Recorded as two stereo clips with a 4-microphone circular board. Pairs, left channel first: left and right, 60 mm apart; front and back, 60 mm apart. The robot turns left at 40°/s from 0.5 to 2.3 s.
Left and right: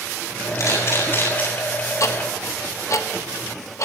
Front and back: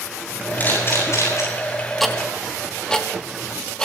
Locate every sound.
0.6 s a camera shutter: 60° left, 8.5 m; by 1.4 s 25° left, 8.5 m
2.0 s ticking: 85° left, 1.6 m; by 3.9 s 75° left, 1.6 m